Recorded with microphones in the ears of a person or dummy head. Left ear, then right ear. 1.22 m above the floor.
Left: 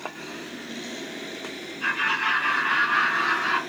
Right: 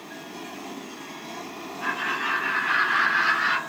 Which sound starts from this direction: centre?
Laughter, at 1.8 s.